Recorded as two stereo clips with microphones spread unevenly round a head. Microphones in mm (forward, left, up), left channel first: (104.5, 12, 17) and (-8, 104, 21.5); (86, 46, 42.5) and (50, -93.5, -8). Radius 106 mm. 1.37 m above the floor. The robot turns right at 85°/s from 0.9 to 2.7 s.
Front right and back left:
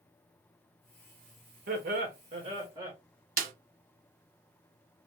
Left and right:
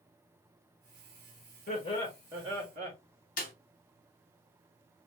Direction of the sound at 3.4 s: 120° left.